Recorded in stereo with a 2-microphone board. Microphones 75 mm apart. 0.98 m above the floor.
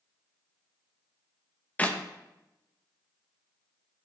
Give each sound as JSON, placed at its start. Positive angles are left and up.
{"t": 1.8, "sound": "a clap", "side_deg": 20, "distance_m": 0.9}